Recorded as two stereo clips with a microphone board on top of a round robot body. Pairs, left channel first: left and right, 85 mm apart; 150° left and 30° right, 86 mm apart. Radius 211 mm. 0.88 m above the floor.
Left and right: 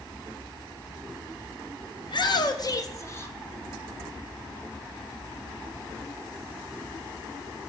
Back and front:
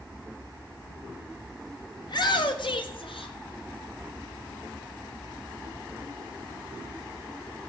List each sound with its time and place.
2.0 s a shout: 115° left, 1.6 m; by 3.4 s 155° left, 1.5 m